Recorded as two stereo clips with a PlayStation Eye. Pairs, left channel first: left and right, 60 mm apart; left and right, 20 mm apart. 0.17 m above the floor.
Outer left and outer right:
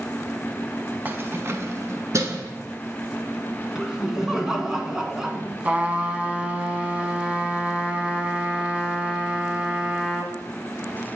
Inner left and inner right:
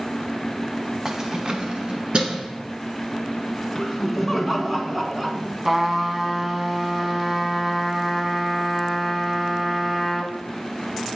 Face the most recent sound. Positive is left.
turn(degrees=-20)  # may be behind; listen again after turning